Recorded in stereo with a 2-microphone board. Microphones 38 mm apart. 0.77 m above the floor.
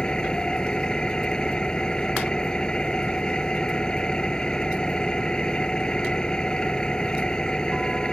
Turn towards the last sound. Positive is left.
turn(degrees=25)  # may be behind; listen again after turning